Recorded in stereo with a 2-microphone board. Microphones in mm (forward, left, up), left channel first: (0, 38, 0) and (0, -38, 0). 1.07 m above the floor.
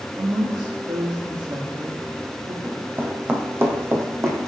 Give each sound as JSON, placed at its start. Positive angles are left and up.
{"t": 0.2, "sound": "a woman speaking", "side_deg": -70, "distance_m": 1.8}
{"t": 2.6, "sound": "running footsteps", "side_deg": -15, "distance_m": 2.5}